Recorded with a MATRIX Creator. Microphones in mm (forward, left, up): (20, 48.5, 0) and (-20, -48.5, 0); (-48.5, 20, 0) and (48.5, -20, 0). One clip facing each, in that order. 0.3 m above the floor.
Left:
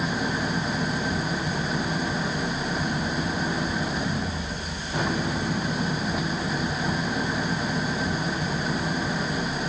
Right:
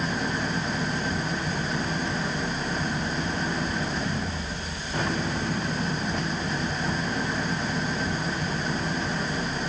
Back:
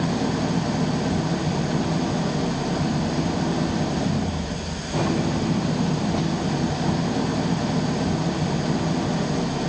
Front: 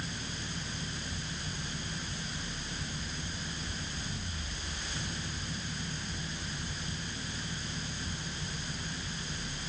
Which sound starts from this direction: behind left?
An engine running, at 0.0 s.